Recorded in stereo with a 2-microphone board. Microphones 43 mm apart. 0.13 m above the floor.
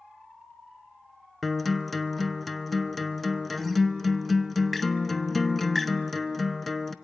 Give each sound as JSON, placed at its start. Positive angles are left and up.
{"t": 1.4, "sound": "a guitar", "side_deg": 0, "distance_m": 0.5}